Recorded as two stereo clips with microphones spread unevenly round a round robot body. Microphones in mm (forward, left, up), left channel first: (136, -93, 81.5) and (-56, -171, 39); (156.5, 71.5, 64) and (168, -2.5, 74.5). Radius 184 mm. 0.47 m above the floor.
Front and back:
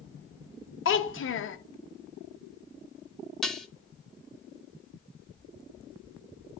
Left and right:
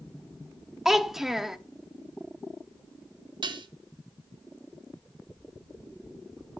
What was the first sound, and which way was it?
A child speaking, 10° left.